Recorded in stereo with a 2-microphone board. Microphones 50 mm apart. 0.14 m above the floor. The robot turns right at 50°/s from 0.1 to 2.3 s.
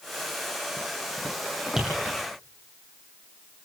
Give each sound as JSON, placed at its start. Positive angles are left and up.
{"t": 1.8, "sound": "tapping", "side_deg": -10, "distance_m": 6.5}